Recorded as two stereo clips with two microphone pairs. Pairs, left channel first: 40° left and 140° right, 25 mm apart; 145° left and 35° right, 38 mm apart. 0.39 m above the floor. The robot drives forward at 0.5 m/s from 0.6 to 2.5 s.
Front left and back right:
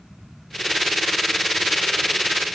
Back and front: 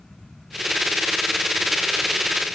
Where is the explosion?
I don't hear an explosion.